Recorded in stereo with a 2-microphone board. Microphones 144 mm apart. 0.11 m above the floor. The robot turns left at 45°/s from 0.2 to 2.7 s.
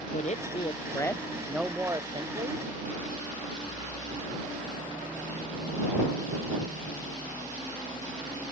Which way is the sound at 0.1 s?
55° left.